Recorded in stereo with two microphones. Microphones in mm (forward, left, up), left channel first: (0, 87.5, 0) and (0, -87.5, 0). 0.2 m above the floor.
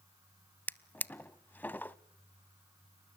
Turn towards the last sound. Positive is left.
turn(degrees=10)  # may be behind; listen again after turning